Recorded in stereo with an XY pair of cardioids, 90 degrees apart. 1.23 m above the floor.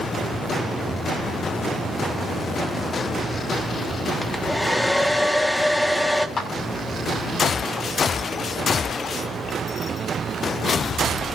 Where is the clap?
50° left, 6 m.